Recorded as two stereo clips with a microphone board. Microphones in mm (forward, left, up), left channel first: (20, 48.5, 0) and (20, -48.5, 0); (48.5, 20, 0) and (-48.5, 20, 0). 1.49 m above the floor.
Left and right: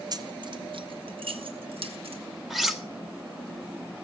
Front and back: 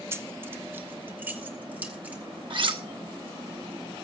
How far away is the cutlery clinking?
About 1.2 m.